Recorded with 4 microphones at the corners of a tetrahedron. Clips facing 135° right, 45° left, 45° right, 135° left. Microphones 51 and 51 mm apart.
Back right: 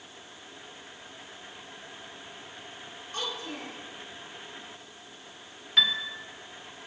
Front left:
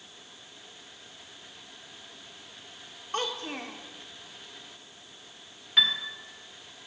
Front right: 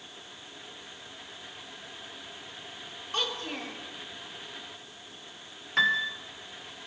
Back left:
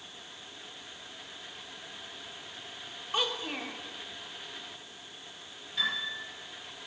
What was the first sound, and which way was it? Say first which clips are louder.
A child speaking: front left 4 dB, back left 1 dB; 60° left.